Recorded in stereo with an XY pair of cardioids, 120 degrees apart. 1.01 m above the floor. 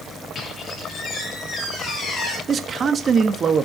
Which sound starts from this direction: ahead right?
A man speaking, at 2.5 s.